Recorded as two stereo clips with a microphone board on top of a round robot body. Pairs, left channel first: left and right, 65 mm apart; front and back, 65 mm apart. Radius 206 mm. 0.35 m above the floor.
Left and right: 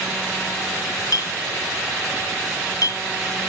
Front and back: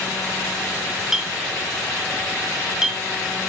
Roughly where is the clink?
Left.